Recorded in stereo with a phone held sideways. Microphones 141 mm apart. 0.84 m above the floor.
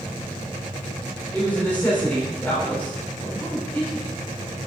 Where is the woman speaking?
10° left (ahead or behind), 3 m.